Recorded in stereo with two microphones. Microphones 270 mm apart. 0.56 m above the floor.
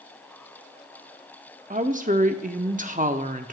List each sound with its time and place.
1.7 s a woman speaking: 30° right (ahead or behind), 0.7 m